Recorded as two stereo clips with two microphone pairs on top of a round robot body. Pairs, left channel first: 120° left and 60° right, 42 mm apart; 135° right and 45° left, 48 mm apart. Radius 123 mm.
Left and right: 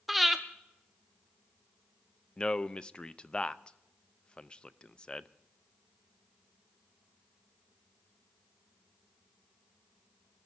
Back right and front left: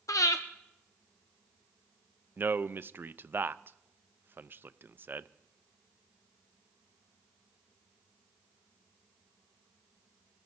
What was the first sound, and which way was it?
Breathing, 135° right.